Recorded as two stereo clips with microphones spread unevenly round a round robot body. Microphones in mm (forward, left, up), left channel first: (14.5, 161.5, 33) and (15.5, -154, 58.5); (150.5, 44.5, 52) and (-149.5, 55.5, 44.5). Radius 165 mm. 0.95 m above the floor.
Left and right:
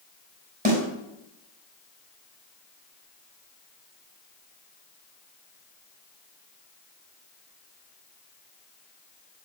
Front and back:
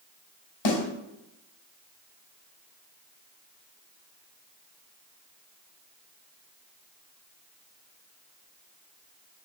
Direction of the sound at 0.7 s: 25° right.